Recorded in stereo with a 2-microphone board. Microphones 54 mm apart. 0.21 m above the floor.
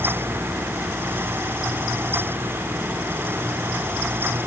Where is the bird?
I don't hear a bird.